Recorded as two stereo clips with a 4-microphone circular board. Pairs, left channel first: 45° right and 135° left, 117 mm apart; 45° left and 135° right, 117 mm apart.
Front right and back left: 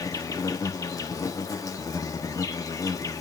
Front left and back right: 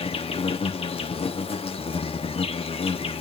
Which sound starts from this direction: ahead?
An insect, at 0.0 s.